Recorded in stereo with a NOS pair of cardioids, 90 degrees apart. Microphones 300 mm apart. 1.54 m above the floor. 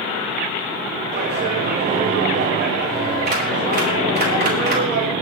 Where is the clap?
35° right, 5.5 m.